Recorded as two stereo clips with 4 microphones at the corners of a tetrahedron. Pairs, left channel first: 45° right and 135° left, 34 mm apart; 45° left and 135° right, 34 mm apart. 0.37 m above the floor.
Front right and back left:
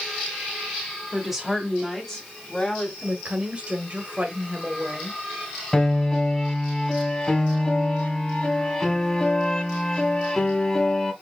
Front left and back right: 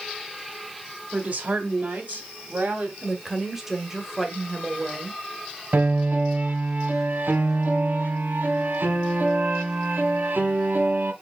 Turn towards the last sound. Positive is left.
turn(degrees=-115)